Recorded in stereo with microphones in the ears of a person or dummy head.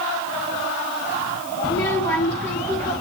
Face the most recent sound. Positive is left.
turn(degrees=10)  # may be behind; listen again after turning